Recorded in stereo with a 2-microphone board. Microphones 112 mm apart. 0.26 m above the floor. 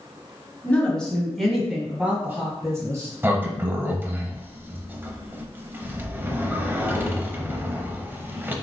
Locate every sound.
0.6 s a woman speaking: 15° left (ahead or behind), 1.6 m; by 3.1 s 30° right (ahead or behind), 1.6 m
3.2 s a sliding door: 20° right (ahead or behind), 0.7 m